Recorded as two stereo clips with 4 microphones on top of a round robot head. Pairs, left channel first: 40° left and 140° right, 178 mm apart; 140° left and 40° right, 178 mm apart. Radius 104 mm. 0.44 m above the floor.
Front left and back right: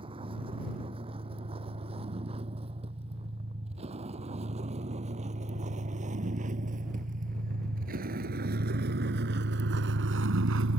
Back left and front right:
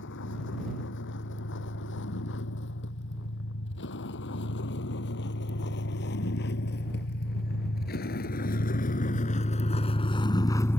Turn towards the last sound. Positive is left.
turn(degrees=-140)